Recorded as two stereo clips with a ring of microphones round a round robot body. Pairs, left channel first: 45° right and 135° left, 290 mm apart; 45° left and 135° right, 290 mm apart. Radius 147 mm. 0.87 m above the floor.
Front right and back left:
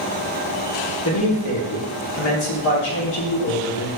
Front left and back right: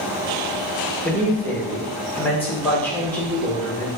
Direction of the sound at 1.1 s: 40° right.